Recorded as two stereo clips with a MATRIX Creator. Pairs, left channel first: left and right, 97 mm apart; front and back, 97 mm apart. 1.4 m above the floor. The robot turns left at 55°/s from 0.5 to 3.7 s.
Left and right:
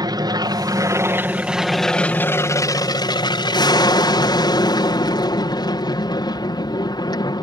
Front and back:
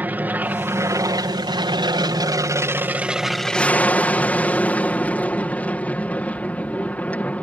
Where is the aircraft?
110° right; by 7.5 s 70° left.